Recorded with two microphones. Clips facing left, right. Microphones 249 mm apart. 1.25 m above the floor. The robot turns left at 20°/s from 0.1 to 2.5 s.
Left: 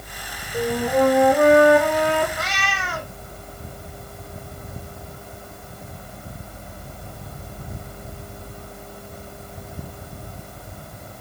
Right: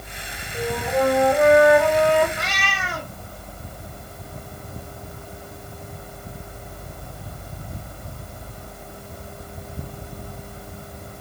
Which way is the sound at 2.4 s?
5° left (ahead or behind).